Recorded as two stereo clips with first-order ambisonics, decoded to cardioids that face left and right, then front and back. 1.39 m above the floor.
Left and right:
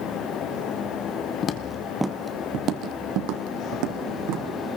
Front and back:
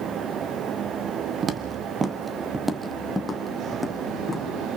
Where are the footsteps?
125° left, 1.7 m; by 4.8 s 80° right, 4.5 m.